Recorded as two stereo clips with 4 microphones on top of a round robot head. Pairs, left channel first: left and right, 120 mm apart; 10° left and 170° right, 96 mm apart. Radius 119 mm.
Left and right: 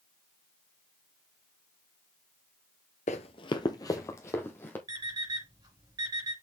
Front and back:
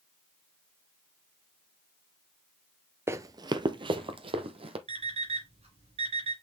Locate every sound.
3.1 s running footsteps: 130° left, 0.6 m; by 4.8 s 165° left, 1.5 m
4.9 s an alarm clock: 150° right, 4 m